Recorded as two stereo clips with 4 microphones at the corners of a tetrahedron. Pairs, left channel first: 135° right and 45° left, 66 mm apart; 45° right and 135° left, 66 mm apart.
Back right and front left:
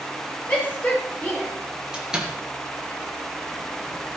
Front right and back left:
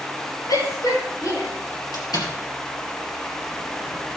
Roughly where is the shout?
Right.